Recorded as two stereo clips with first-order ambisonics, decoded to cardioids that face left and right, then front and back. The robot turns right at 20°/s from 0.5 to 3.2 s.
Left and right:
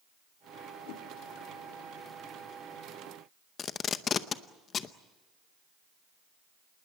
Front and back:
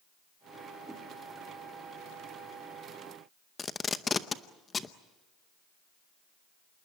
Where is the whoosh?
95° left, 1.6 m; by 1.1 s 100° left, 1.6 m.